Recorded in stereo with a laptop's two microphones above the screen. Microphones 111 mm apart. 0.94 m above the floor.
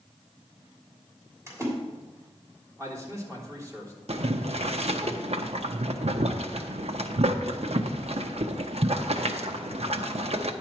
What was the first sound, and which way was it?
A splash, 30° right (ahead or behind).